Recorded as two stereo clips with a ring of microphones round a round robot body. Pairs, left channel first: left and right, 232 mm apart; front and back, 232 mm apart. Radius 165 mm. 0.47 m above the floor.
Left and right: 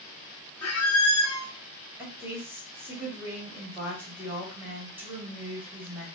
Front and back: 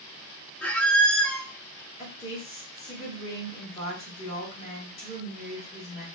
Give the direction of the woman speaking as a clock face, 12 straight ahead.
1 o'clock.